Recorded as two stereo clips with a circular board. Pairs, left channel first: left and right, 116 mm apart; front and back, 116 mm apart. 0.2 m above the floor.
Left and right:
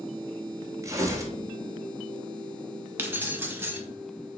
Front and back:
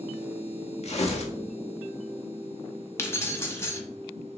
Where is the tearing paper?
25° right, 0.8 m.